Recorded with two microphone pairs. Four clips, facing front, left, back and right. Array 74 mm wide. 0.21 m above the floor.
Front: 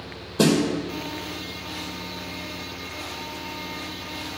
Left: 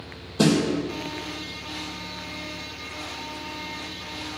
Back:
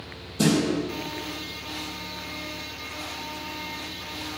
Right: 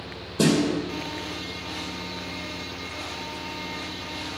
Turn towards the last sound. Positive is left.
turn(degrees=-5)